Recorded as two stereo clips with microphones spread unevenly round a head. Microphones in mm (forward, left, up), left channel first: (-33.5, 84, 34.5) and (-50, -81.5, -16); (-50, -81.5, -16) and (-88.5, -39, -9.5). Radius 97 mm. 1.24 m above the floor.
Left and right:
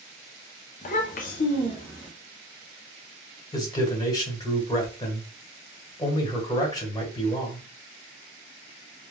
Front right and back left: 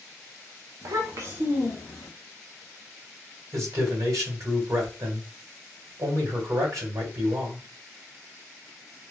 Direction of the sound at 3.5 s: 155° left.